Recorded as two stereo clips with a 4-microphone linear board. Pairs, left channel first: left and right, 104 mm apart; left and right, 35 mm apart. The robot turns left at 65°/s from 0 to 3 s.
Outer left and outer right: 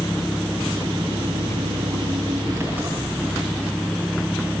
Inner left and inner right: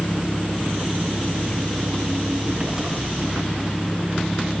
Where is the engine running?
15° left, 8 m; by 4.6 s straight behind, 8 m.